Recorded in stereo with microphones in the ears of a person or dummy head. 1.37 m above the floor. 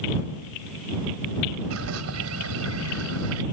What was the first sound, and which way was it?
A bird, 85° right.